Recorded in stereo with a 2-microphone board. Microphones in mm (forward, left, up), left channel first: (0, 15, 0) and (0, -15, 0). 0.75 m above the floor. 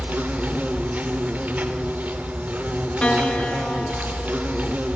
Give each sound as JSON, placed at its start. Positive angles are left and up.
{"t": 0.0, "sound": "an insect", "side_deg": -65, "distance_m": 1.6}
{"t": 3.0, "sound": "a piano", "side_deg": 40, "distance_m": 0.9}